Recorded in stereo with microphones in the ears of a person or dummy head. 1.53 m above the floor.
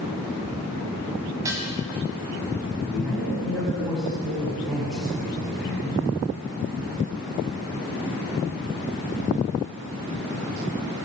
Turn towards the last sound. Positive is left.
turn(degrees=0)  # may be behind; listen again after turning